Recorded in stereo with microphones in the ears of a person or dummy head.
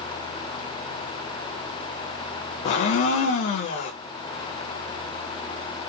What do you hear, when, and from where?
2.6 s a blender: 40° left (ahead or behind), 0.6 m